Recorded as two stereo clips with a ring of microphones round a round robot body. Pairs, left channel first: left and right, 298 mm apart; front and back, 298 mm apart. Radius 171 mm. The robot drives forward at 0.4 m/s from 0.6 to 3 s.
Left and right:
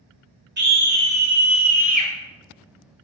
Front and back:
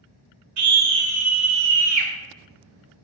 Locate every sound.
0.6 s a scream: 150° right, 2.5 m; by 2.1 s 155° right, 3 m